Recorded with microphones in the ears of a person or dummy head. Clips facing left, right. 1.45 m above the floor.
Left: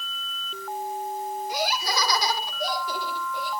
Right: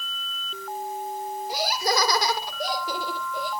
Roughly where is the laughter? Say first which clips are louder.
Right 4 dB; right.